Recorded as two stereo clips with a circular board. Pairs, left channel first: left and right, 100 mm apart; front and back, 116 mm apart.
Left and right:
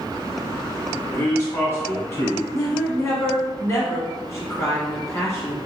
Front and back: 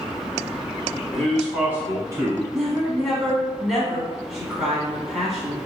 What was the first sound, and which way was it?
A man speaking, 70° left.